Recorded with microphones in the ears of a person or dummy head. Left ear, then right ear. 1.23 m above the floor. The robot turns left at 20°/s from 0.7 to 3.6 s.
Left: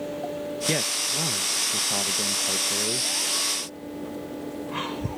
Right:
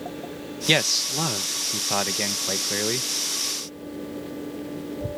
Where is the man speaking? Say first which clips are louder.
Right 6 dB; 45° right; by 3.1 s 90° right.